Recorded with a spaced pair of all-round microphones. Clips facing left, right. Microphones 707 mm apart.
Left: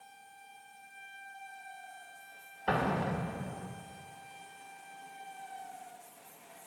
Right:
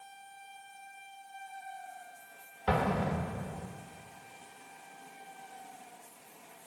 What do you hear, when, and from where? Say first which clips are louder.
2.7 s an explosion: right 1 dB; 35° right (ahead or behind), 1.5 m